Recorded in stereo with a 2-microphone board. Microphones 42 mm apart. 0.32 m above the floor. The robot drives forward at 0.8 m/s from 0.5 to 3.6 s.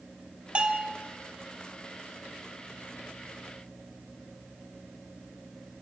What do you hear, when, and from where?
0.6 s a bell: 30° right (ahead or behind), 1.7 m; by 0.9 s 25° right (ahead or behind), 2.0 m